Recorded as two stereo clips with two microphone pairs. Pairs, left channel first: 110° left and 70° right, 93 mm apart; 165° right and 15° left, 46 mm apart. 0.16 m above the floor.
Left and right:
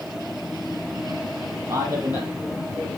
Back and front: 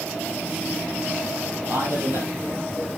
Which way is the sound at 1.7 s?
5° right.